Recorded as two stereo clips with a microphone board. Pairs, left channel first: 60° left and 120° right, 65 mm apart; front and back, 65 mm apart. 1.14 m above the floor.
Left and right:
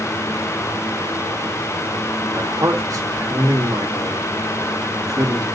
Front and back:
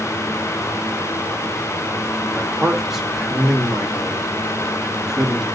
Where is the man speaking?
95° right, 1.7 m.